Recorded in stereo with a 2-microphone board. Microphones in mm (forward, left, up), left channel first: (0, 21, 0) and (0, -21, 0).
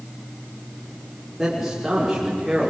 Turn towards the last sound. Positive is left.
turn(degrees=-10)  # may be behind; listen again after turning